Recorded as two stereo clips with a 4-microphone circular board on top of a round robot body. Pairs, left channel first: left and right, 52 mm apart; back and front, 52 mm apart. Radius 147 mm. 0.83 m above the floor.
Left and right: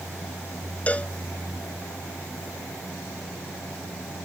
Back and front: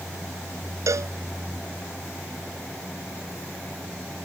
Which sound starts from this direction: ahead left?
A cowbell, at 0.9 s.